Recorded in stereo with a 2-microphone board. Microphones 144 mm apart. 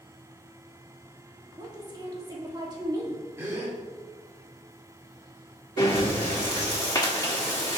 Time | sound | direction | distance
1.6 | a woman speaking | 30° right (ahead or behind) | 1.2 m
3.4 | a gasp | 20° right (ahead or behind) | 1.8 m
5.8 | breathing | 30° left (ahead or behind) | 1.6 m